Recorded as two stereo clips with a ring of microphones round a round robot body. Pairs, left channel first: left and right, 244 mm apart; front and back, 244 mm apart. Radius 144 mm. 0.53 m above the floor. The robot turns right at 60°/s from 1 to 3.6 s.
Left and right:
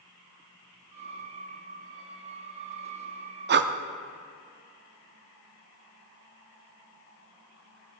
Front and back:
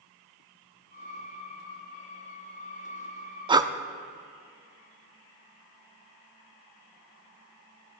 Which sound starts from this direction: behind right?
Breathing, at 3.5 s.